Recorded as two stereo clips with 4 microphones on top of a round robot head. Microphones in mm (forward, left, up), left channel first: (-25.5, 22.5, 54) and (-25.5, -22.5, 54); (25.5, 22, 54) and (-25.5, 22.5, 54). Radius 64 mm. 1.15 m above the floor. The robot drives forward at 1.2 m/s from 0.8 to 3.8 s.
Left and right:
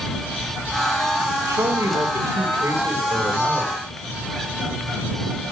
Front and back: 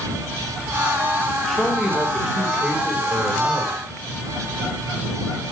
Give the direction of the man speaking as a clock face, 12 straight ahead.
3 o'clock.